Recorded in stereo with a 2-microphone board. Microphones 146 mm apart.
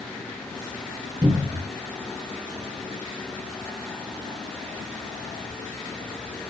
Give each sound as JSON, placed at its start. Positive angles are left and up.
{"t": 1.2, "sound": "a cupboard door", "side_deg": -25, "distance_m": 0.7}